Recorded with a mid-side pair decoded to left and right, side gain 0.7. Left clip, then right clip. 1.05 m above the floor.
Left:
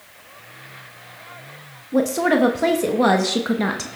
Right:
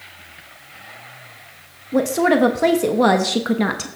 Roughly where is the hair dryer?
No hair dryer in this recording.